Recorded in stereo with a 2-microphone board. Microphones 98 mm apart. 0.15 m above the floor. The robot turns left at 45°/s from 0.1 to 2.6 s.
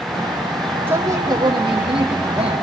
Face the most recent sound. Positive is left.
turn(degrees=-100)